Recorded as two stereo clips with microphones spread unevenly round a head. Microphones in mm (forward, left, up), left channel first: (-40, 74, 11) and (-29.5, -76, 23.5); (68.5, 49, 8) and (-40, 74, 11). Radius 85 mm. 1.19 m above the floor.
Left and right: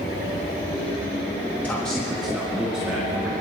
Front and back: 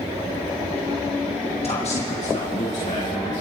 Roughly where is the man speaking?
Ahead.